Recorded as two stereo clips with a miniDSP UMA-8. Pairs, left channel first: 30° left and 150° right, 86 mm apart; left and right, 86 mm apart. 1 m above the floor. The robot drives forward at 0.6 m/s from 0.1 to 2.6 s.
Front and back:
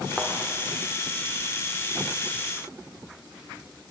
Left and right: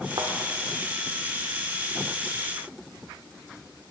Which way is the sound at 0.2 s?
60° right.